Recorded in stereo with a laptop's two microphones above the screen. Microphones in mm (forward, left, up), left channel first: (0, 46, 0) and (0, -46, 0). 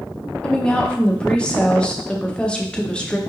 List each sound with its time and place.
0.4 s a woman speaking: 10° left (ahead or behind), 0.6 m